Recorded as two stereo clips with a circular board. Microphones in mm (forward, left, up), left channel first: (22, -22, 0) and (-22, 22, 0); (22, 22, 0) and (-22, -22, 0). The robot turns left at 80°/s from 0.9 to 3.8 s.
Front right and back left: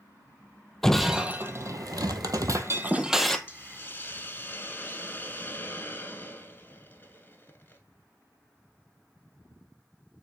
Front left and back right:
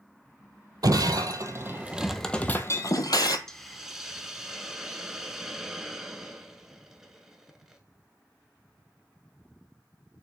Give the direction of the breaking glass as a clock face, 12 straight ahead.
4 o'clock.